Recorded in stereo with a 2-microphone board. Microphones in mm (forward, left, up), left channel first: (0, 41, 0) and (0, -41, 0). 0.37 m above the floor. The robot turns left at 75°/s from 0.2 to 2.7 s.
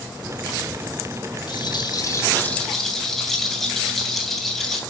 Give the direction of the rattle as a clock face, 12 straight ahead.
9 o'clock.